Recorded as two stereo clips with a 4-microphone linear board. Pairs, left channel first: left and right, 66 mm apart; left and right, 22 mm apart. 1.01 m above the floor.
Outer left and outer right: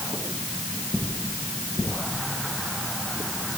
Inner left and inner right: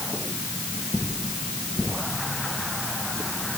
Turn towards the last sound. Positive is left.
No sound to turn to.